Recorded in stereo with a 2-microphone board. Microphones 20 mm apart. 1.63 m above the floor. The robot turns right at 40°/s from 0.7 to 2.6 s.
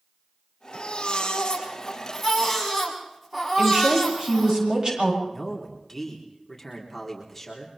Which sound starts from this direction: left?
A baby crying, at 0.7 s.